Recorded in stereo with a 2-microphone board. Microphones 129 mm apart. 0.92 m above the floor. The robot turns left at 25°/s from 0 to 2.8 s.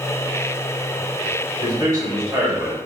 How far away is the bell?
I don't hear a bell.